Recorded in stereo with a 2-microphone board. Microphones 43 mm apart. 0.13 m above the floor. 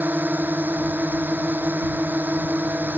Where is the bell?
I don't hear a bell.